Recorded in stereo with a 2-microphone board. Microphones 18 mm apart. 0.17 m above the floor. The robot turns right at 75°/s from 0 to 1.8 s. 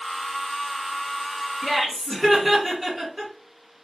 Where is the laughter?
25° right (ahead or behind), 1.6 m; by 3.3 s 15° right (ahead or behind), 1.6 m.